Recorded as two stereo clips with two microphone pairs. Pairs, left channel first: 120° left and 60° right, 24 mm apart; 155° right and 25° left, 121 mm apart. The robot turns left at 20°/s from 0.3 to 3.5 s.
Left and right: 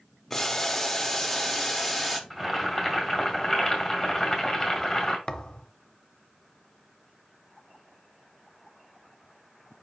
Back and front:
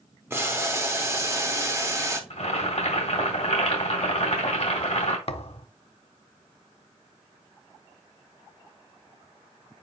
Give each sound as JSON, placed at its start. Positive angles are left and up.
{"t": 0.3, "sound": "boiling", "azimuth_deg": 60, "distance_m": 1.0}
{"t": 2.3, "sound": "boiling", "azimuth_deg": -135, "distance_m": 1.9}
{"t": 5.3, "sound": "a thud", "azimuth_deg": 175, "distance_m": 0.6}